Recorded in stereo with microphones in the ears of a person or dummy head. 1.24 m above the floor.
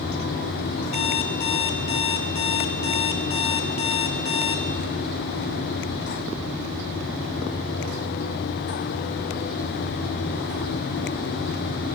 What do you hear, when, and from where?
0.9 s an alarm clock: 35° left (ahead or behind), 1.6 m